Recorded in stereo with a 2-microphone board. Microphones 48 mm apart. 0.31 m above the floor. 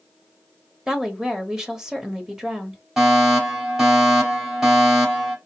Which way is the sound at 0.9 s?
10° right (ahead or behind).